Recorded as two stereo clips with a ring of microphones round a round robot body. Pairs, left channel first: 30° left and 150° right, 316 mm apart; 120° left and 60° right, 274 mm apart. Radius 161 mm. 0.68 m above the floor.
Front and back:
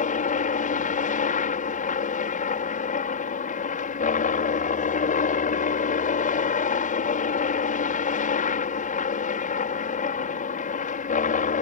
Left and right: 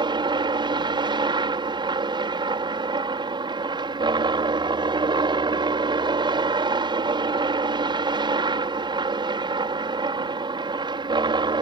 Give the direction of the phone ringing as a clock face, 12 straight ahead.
No phone ringing in this recording.